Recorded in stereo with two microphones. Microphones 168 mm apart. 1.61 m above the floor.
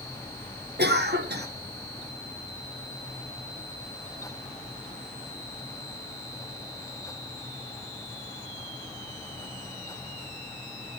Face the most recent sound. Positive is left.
turn(degrees=-80)